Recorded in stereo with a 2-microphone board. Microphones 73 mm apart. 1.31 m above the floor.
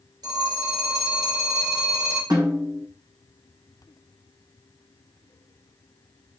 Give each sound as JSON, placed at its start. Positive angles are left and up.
{"t": 0.2, "sound": "a phone ringing", "side_deg": -70, "distance_m": 3.5}
{"t": 2.3, "sound": "a snare drum", "side_deg": -60, "distance_m": 2.5}